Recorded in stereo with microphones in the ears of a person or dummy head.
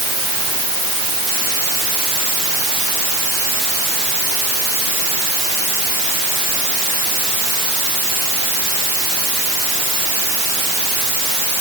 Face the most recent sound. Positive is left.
No sound to turn to.